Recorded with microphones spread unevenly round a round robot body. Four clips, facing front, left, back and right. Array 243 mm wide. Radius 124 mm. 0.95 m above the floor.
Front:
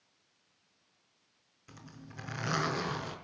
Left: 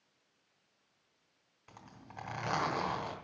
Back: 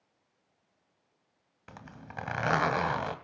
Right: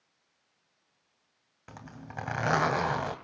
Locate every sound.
1.7 s a zipper: 130° right, 2.5 m